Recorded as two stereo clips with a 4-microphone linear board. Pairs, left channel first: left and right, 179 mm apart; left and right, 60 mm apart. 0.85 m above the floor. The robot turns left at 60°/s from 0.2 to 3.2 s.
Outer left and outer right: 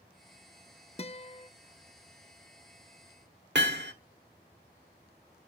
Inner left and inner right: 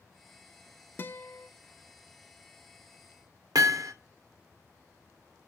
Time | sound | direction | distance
1.0 | a guitar | 80° left | 0.5 m
3.5 | hammering | 80° right | 1.1 m